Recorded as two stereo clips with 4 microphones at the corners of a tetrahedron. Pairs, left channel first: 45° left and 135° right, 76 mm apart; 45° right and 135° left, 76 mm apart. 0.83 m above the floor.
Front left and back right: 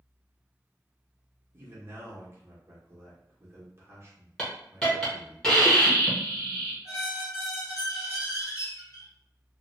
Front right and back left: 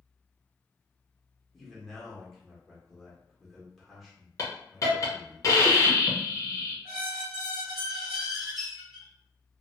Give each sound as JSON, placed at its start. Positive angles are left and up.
{"t": 1.5, "sound": "a man speaking", "azimuth_deg": -130, "distance_m": 1.1}
{"t": 4.4, "sound": "a hiss", "azimuth_deg": -30, "distance_m": 0.9}
{"t": 6.8, "sound": "a squeak", "azimuth_deg": 50, "distance_m": 1.2}